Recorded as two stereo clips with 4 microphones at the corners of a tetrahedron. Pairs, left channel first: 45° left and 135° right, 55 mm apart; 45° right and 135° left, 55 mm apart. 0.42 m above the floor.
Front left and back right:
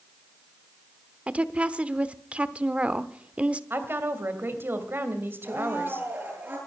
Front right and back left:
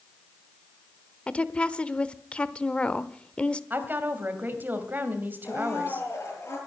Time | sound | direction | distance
1.3 | a woman speaking | 90° right | 0.9 m
3.7 | a woman speaking | 175° right | 2.5 m
5.4 | a blender | 80° right | 9.5 m